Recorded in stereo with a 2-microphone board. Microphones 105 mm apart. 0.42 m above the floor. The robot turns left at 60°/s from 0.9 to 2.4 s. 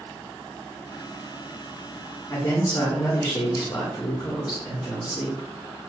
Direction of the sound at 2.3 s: 45° left (ahead or behind).